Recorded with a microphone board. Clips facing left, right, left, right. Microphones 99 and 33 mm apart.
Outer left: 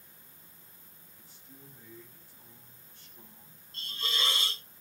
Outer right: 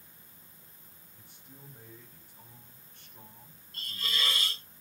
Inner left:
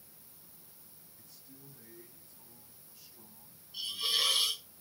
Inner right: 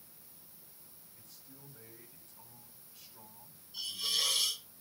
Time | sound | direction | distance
1.1 | a man speaking | 55° right (ahead or behind) | 6 m
3.7 | a hiss | 25° left (ahead or behind) | 1.8 m